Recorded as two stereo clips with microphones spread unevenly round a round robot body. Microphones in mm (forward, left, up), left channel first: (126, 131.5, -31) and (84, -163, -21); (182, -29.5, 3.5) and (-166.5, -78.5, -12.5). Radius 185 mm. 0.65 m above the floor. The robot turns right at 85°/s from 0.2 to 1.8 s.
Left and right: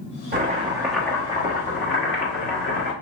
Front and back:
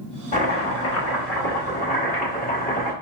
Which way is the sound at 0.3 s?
60° right.